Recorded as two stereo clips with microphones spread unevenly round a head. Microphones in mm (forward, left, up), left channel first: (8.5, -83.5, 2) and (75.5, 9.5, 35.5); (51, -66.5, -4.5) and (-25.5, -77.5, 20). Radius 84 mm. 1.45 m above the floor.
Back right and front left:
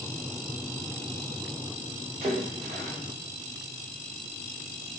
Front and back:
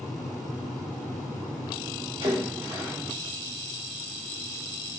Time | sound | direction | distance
2.2 | a splash | 130° left | 5.5 m